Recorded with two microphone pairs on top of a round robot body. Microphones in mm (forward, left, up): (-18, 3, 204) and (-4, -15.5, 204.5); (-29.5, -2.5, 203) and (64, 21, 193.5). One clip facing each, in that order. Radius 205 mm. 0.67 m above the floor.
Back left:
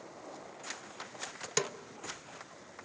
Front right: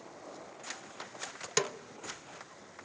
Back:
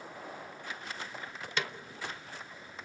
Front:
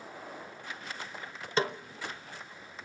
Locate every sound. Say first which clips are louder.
1.6 s a snare drum: front right 2 dB, front 7 dB; 20° left, 1.0 m